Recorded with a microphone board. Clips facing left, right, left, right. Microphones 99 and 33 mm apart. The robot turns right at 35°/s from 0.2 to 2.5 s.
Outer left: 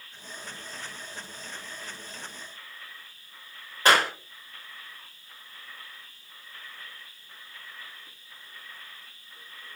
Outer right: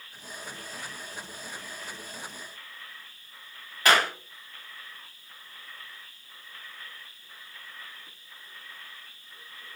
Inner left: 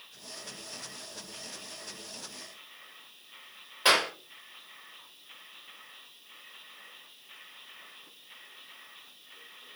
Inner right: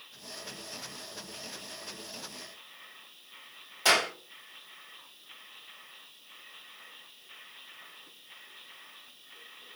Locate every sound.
3.9 s a clap: 30° left (ahead or behind), 2.5 m